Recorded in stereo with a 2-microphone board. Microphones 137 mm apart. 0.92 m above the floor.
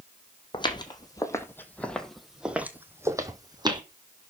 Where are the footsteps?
35° left (ahead or behind), 1.7 m; by 3.8 s 35° right (ahead or behind), 1.8 m.